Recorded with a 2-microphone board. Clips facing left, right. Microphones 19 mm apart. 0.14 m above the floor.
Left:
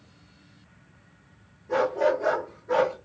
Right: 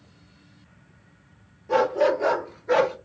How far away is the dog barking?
About 1.5 m.